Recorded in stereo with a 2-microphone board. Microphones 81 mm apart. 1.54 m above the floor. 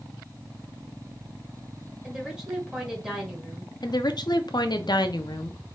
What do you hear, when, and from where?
2.0 s a woman speaking: 10° right (ahead or behind), 1.9 m
3.8 s a woman speaking: 60° left (ahead or behind), 0.6 m